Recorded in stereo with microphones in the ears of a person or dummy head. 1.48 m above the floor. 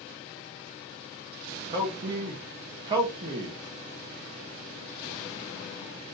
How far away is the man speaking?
About 0.8 m.